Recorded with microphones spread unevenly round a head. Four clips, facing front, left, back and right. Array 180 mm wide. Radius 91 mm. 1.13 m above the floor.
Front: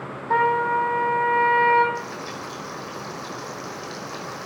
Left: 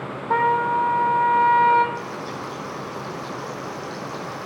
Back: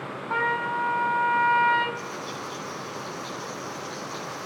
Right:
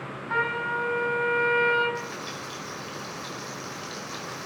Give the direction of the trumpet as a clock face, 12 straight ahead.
10 o'clock.